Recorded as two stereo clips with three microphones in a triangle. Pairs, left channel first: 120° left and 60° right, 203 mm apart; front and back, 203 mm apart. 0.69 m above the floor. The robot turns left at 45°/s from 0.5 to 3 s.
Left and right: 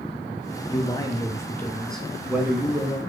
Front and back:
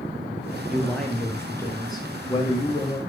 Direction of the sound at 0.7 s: 90° left.